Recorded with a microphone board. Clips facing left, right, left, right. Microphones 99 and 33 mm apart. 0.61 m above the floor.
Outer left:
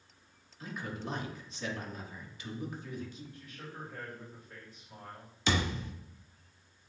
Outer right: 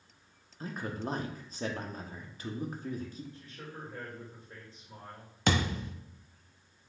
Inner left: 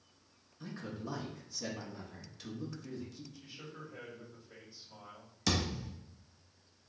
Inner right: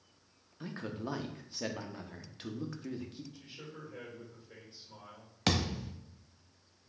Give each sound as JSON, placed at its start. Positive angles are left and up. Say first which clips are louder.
{"t": 0.6, "sound": "a man speaking", "louder": "outer right 3 dB, inner right 3 dB", "side_deg": -40, "distance_m": 0.6}
{"t": 3.3, "sound": "a man speaking", "louder": "even, inner right 1 dB", "side_deg": -30, "distance_m": 2.5}
{"t": 5.5, "sound": "a thud", "louder": "outer right 2 dB, inner right 2 dB", "side_deg": -55, "distance_m": 0.8}